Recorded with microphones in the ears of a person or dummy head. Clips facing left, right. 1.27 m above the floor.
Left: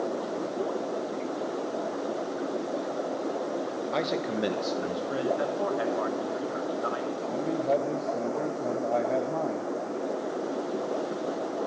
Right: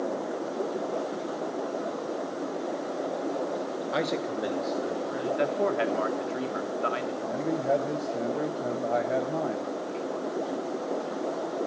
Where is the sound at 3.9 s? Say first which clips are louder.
Even; 5° right (ahead or behind), 1.0 m; by 5.3 s 70° left (ahead or behind), 1.8 m.